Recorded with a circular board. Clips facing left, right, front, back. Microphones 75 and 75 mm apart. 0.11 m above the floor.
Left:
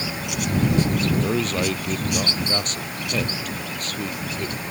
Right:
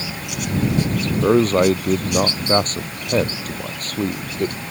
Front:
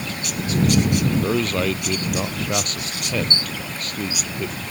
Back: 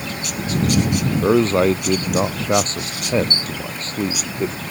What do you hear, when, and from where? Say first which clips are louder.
1.2 s a man speaking: right 8 dB, back 6 dB; 130° right